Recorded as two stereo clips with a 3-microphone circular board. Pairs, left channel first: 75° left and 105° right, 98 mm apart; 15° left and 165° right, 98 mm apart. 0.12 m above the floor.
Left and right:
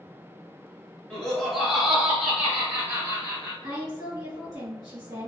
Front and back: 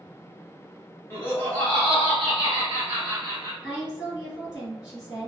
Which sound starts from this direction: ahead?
Laughter, at 1.1 s.